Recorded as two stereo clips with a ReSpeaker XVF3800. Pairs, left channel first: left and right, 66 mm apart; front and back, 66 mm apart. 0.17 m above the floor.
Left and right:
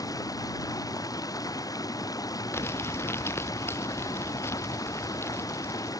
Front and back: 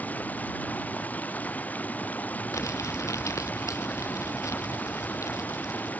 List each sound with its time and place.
0.0 s running water: 65° left
2.5 s crumpling: 40° left